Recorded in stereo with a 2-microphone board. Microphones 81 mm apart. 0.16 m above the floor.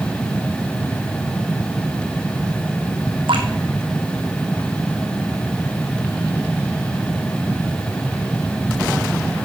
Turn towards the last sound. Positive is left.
turn(degrees=-85)